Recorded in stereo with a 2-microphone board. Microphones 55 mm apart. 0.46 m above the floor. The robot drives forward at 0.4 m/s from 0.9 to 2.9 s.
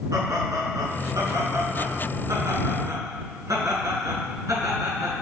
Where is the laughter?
80° right, 4.5 m; by 5.2 s 75° right (ahead or behind), 4.5 m.